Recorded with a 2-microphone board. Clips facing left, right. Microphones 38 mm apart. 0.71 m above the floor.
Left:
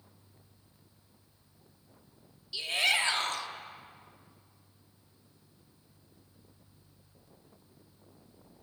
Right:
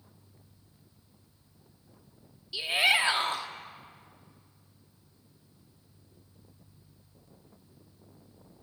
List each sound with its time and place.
2.5 s a shout: 20° right (ahead or behind), 1.2 m